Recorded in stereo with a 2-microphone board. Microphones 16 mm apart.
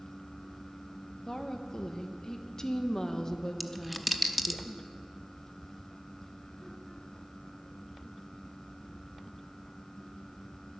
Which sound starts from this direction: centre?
A dropped coin, at 3.6 s.